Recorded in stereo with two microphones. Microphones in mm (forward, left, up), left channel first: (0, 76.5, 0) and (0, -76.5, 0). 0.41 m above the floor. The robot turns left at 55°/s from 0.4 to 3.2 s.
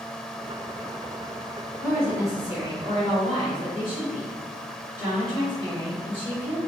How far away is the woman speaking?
About 1.6 m.